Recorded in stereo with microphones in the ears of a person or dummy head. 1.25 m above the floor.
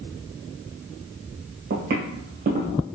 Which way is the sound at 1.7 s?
55° right (ahead or behind).